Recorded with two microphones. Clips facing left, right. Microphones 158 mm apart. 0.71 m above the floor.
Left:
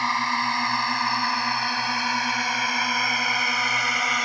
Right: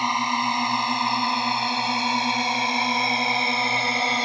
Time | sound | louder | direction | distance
0.0 | a drone | right 2 dB | 20° right (ahead or behind) | ?